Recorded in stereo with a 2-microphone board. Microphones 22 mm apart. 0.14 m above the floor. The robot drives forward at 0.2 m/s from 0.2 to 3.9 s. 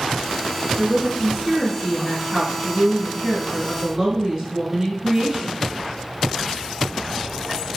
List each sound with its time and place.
0.8 s a woman speaking: 10° right (ahead or behind), 1.3 m; by 5.7 s 15° right (ahead or behind), 1.0 m